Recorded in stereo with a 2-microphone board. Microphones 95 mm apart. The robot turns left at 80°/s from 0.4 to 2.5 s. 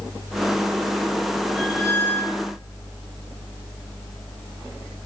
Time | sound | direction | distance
1.6 | a squeak | 165° right | 3 m